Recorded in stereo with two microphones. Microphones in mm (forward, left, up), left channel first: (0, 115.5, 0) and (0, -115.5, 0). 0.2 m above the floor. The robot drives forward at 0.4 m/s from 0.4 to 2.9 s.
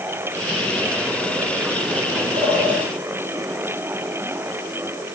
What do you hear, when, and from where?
2.3 s a bird: 10° left (ahead or behind), 1.7 m